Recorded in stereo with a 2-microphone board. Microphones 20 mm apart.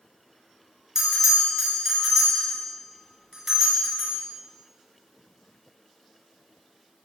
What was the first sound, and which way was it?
A bell, 30° right (ahead or behind).